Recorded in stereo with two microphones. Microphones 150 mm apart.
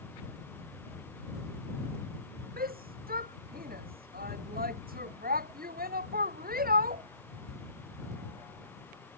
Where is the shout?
80° right.